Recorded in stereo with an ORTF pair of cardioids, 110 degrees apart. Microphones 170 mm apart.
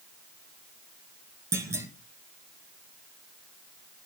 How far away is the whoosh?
No whoosh in this recording.